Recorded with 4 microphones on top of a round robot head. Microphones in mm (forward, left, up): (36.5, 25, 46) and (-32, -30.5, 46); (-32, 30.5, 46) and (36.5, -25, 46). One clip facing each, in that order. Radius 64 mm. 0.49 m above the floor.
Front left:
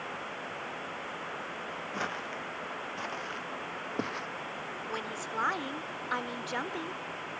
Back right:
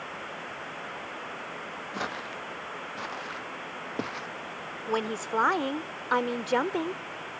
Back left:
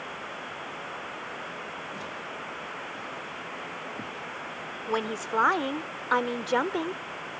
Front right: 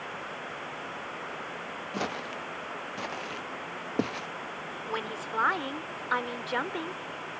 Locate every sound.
1.9 s footsteps: 60° right; by 4.3 s 55° right
4.9 s a woman speaking: 165° right